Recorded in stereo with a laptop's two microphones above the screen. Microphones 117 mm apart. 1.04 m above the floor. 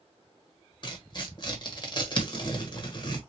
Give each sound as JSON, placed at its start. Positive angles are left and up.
{"t": 0.8, "sound": "tearing paper", "side_deg": 40, "distance_m": 1.2}